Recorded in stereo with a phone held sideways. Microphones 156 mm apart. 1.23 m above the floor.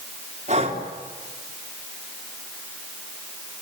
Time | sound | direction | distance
0.5 | breathing | 50° right (ahead or behind) | 3.5 m